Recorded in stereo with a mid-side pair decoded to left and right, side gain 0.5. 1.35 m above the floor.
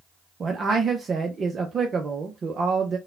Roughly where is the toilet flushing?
No toilet flushing in this recording.